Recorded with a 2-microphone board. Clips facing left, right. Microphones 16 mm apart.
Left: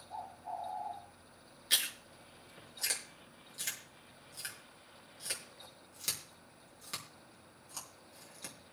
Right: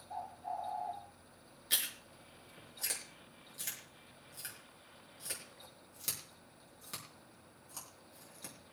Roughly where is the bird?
Right.